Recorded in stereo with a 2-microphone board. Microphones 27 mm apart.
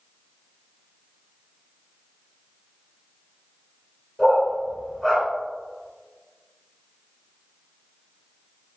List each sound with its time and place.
4.2 s a dog barking: 20° left (ahead or behind), 1.9 m